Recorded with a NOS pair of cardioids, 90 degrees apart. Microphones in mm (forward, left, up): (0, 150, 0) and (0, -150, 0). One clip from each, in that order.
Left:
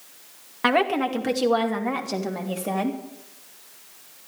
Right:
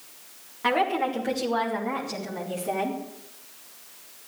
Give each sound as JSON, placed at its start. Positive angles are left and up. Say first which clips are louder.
{"t": 0.6, "sound": "a woman speaking", "louder": "left 2 dB", "azimuth_deg": 60, "distance_m": 2.0}